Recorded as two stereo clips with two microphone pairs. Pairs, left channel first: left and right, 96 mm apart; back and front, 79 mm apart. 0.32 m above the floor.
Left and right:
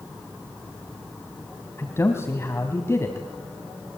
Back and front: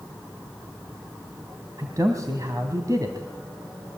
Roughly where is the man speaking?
Ahead left.